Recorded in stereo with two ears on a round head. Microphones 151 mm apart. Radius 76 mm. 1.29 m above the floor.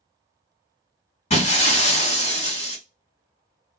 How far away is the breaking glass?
About 1.8 m.